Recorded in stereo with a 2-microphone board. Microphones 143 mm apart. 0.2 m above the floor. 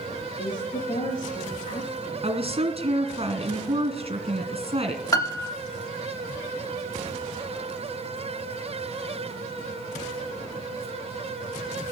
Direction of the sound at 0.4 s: 70° left (ahead or behind).